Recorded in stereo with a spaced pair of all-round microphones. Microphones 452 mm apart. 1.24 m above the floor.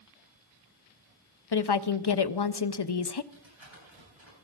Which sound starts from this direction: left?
A woman speaking, at 1.5 s.